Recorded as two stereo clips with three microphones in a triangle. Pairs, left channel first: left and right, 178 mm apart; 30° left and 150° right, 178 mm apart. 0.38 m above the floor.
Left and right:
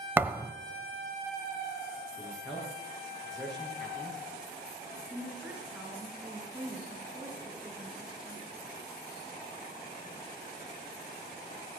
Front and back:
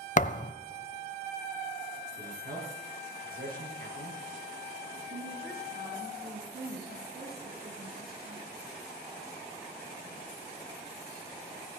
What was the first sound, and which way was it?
A thud, 15° right.